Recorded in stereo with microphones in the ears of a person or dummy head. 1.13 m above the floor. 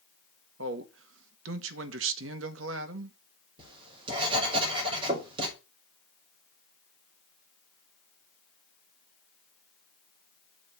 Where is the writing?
30° right (ahead or behind), 5 m.